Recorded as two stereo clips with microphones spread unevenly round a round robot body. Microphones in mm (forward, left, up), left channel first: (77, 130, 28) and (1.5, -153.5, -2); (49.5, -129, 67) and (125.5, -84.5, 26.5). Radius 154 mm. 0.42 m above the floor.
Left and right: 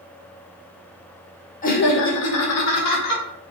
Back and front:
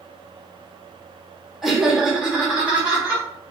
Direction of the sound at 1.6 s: 30° left.